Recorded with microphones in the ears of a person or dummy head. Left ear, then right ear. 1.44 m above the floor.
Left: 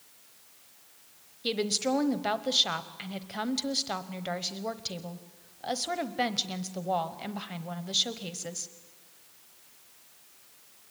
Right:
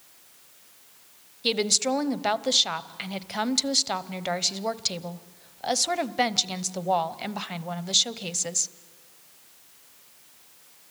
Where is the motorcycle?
No motorcycle in this recording.